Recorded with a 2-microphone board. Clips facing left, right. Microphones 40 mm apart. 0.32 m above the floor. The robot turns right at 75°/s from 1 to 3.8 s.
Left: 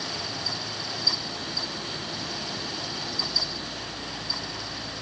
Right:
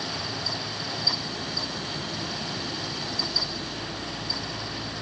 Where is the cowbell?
No cowbell in this recording.